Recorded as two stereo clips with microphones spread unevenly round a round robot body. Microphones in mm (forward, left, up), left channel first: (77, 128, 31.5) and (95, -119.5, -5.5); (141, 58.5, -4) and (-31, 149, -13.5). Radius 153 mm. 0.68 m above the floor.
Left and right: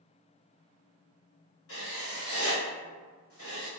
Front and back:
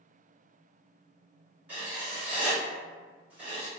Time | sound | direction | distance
1.7 | writing | 75° left | 1.5 m